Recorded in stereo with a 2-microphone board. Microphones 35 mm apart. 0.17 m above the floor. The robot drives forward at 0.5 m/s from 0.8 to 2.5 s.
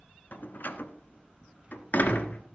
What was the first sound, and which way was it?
A door slam, 55° left (ahead or behind).